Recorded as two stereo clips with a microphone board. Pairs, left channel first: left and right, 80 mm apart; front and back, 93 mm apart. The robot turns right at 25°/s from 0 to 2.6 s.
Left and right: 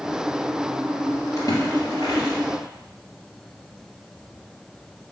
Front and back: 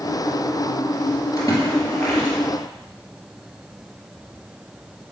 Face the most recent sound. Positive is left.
turn(degrees=80)